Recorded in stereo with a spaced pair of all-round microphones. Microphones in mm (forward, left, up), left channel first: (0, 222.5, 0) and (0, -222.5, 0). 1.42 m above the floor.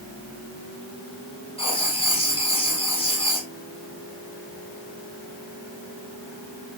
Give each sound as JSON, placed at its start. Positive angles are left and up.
{"t": 1.6, "sound": "writing", "side_deg": 10, "distance_m": 2.5}